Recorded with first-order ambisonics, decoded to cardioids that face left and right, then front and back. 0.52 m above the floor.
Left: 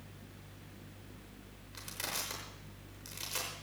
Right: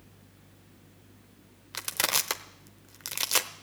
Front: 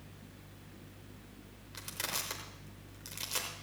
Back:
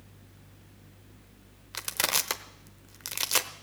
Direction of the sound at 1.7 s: 130° right.